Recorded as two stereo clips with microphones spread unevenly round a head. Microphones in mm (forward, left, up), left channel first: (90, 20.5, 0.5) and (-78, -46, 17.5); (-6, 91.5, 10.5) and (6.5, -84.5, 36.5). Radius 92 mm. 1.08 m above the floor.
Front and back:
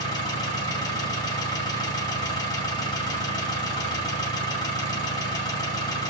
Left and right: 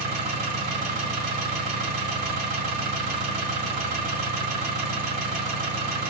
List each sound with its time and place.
0.0 s an engine running: 50° right, 2 m